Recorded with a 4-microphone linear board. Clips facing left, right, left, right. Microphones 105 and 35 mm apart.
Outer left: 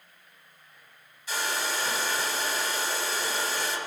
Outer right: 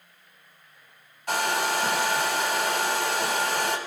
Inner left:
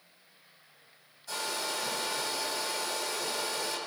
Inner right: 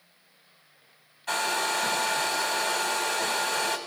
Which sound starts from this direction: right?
A hair dryer, at 1.3 s.